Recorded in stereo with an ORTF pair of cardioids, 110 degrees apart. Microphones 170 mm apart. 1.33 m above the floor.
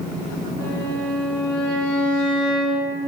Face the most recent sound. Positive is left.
turn(degrees=70)